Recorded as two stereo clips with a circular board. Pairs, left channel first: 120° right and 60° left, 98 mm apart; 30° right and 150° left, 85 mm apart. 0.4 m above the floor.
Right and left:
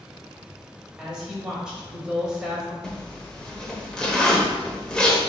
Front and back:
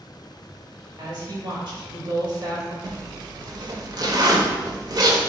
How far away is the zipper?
About 0.7 m.